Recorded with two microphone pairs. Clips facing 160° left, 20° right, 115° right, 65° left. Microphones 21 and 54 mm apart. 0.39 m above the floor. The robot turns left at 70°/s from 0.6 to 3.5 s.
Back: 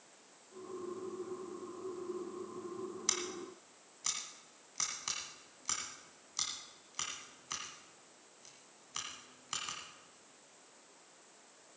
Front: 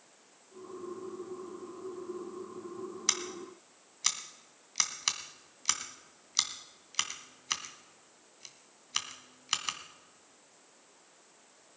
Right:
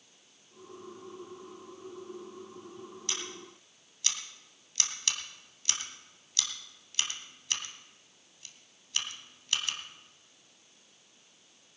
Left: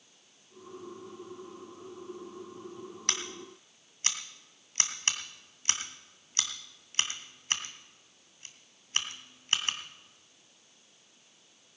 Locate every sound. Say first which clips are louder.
3.1 s scissors: front 5 dB, left 4 dB; 40° left, 1.7 m; by 9.8 s 10° left, 1.7 m